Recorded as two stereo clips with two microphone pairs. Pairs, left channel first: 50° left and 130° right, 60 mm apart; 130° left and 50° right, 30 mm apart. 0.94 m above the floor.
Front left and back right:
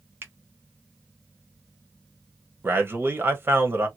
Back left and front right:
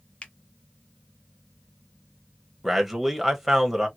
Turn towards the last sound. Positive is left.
turn(degrees=-130)